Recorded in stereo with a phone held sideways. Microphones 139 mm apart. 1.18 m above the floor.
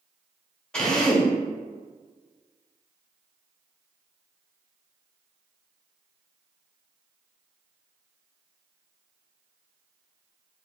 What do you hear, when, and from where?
0.7 s a drill: 5° left (ahead or behind), 0.7 m